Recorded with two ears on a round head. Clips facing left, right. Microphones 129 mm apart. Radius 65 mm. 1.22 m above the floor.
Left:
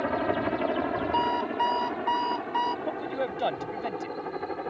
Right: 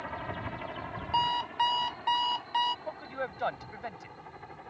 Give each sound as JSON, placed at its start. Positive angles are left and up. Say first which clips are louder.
{"t": 0.0, "sound": "a helicopter", "louder": "left 12 dB", "side_deg": 60}
{"t": 1.1, "sound": "an alarm clock", "louder": "right 1 dB", "side_deg": -30}
{"t": 2.9, "sound": "a man speaking", "louder": "left 7 dB", "side_deg": 30}